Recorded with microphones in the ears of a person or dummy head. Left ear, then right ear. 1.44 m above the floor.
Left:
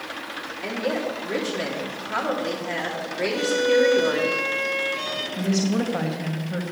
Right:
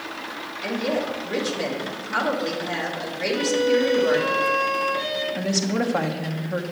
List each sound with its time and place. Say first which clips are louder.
0.6 s a woman speaking: right 1 dB; 30° left (ahead or behind), 2.5 m
3.3 s a violin: left 1 dB; 85° left, 4 m
5.3 s a woman speaking: right 1 dB; 15° right (ahead or behind), 1.2 m